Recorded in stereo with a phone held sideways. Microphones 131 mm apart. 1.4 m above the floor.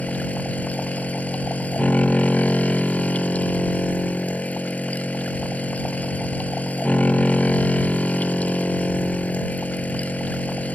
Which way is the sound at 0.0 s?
10° left (ahead or behind).